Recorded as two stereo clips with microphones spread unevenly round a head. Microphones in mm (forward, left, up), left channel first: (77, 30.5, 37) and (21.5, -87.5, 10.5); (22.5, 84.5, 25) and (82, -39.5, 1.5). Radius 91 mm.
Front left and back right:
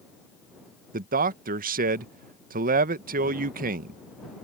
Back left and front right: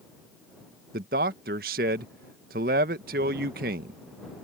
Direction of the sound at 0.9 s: 105° right.